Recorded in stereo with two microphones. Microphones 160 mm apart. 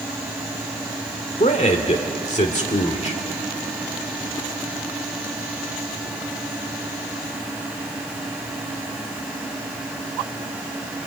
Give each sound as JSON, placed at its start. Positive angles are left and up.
{"t": 1.4, "sound": "a man speaking", "side_deg": 45, "distance_m": 1.8}